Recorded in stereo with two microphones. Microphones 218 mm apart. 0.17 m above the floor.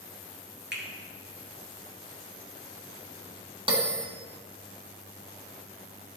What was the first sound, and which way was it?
A finger snap, 55° right (ahead or behind).